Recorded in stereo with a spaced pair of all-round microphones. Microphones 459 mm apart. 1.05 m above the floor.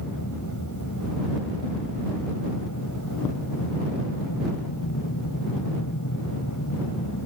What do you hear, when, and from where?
0.0 s an aircraft: 40° left (ahead or behind)